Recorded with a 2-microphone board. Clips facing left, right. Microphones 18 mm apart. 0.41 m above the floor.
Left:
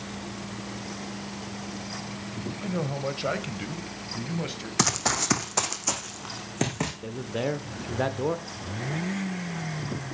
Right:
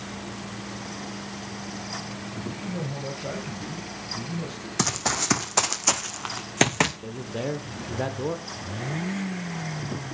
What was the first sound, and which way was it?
A man speaking, 55° left (ahead or behind).